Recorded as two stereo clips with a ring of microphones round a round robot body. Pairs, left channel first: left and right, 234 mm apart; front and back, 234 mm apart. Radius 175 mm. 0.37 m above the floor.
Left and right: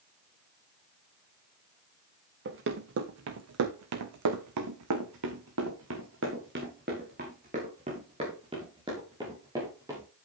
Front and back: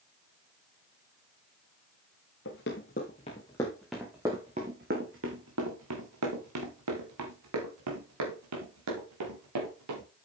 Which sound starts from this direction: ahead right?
Running footsteps, at 2.5 s.